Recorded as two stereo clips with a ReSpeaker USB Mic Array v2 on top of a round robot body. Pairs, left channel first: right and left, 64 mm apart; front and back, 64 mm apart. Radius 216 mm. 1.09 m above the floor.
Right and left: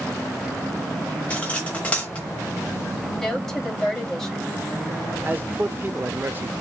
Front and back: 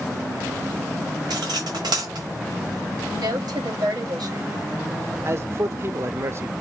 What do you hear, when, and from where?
1.3 s cutlery clinking: 160° right, 1.1 m
3.1 s a woman speaking: 175° right, 3 m
5.2 s a man speaking: 140° left, 1.0 m